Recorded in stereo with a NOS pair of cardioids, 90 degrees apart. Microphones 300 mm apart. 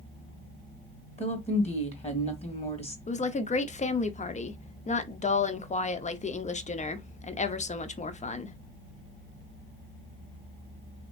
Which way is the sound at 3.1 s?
25° left.